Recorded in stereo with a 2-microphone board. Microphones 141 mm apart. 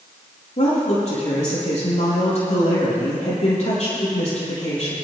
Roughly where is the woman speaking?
Left.